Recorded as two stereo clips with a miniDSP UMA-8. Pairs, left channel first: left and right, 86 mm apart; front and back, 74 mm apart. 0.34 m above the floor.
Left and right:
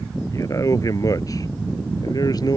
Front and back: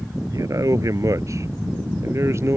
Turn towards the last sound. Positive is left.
turn(degrees=130)